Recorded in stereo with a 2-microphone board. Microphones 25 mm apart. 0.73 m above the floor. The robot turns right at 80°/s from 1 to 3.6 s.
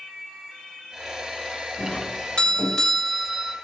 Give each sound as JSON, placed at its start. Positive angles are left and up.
{"t": 1.8, "sound": "a doorbell", "azimuth_deg": 80, "distance_m": 2.5}